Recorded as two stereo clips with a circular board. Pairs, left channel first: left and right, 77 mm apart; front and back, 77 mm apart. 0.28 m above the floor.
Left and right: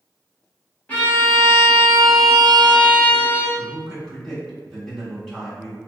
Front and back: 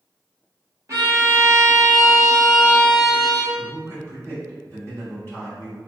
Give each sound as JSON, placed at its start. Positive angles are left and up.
{"t": 0.9, "sound": "a violin", "azimuth_deg": 155, "distance_m": 1.0}
{"t": 3.6, "sound": "a man speaking", "azimuth_deg": 165, "distance_m": 1.9}